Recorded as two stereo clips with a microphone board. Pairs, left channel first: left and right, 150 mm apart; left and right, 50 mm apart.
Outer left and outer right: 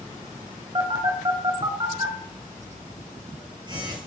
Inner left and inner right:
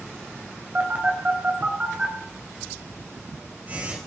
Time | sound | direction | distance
0.8 | a phone buzzing | 30° right (ahead or behind) | 3.5 m